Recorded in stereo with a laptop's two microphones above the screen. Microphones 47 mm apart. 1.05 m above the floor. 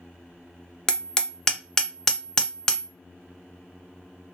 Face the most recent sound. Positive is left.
turn(degrees=20)  # may be behind; listen again after turning